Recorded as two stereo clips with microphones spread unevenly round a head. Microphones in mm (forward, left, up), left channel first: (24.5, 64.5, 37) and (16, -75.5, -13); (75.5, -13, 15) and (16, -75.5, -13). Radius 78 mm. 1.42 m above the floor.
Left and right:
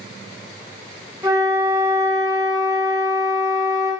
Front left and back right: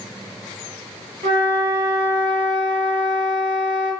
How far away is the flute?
About 1.5 m.